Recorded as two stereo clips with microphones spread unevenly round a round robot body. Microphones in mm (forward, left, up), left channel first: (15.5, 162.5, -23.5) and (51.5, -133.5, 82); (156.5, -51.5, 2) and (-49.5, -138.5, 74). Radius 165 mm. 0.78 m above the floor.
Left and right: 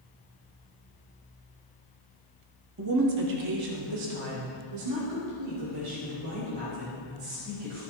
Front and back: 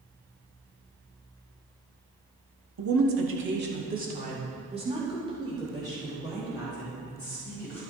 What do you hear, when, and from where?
2.8 s a woman speaking: 140° right, 1.6 m; by 7.8 s 70° right, 6 m